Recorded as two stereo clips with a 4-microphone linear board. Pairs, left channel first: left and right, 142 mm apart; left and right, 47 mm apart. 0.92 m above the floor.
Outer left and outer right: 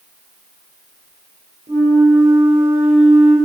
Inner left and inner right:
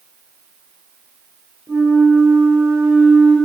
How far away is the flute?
About 5 m.